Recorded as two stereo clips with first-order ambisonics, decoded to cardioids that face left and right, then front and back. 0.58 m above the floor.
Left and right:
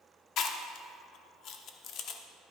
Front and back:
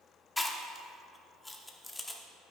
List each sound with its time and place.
0.4 s chewing: 80° left, 0.9 m